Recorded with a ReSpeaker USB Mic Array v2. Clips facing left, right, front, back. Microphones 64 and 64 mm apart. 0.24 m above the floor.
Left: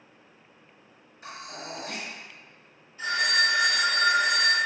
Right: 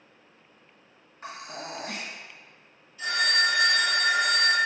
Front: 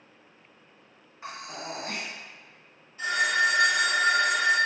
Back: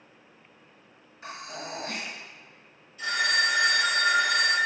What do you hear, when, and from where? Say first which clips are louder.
1.2 s breathing: right 2 dB, front 1 dB; 55° right, 1.8 m
3.0 s a phone ringing: even, front 2 dB; 50° left, 1.6 m